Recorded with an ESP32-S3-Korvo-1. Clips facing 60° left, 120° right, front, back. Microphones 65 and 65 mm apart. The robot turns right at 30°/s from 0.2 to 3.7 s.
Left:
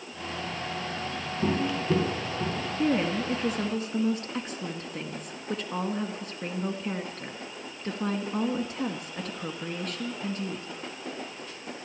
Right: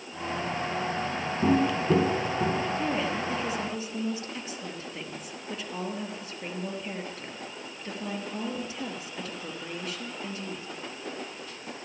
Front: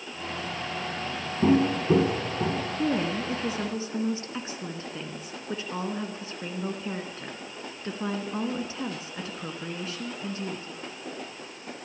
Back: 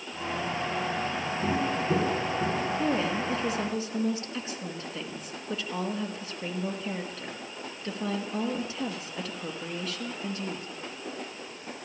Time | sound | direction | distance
1.4 | footsteps | 45° right | 1.4 m
2.8 | a woman speaking | 30° left | 2 m